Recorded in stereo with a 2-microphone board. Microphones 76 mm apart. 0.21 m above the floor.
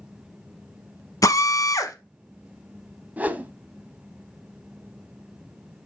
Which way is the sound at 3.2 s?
20° right (ahead or behind).